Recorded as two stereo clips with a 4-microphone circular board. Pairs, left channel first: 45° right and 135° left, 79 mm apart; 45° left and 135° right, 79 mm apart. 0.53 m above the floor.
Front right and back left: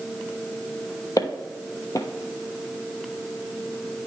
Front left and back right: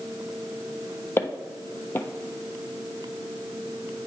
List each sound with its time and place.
1.2 s footsteps: 10° right, 1.0 m